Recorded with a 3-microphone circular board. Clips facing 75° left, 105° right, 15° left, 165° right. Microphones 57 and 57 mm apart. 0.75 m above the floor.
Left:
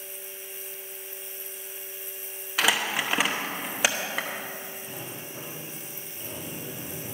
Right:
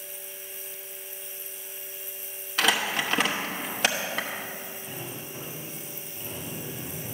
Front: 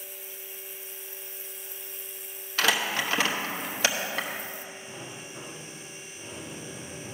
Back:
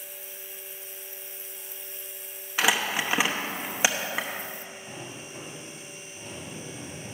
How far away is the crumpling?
About 0.9 m.